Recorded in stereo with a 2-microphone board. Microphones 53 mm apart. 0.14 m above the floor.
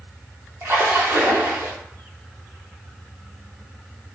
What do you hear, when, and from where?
0.6 s a splash: 50° right (ahead or behind), 0.8 m